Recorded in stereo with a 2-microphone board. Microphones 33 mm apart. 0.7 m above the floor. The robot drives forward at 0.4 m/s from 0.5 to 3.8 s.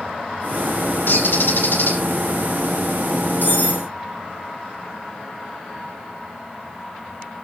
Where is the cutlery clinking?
70° left (ahead or behind), 3 m.